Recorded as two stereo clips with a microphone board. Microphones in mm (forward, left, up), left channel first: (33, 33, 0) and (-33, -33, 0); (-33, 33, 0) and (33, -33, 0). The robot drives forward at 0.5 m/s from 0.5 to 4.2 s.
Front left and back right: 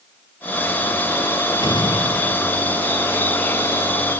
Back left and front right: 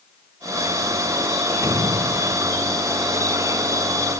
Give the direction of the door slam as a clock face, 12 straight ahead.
12 o'clock.